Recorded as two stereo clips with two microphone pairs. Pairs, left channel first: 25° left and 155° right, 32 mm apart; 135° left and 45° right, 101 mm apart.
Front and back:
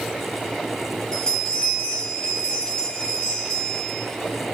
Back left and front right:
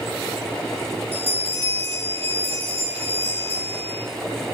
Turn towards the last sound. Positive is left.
turn(degrees=-45)